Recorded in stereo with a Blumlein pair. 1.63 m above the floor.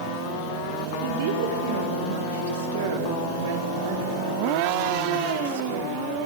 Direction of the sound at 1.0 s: 55° right.